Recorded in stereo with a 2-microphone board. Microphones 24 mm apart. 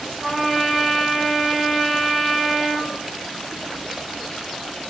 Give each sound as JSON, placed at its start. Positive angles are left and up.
{"t": 0.2, "sound": "a trumpet", "side_deg": -35, "distance_m": 1.2}